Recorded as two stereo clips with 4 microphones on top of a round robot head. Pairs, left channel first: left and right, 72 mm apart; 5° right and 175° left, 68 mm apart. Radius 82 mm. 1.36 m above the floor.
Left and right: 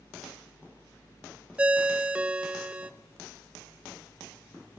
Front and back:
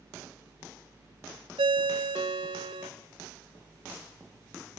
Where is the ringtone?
160° right, 0.7 m.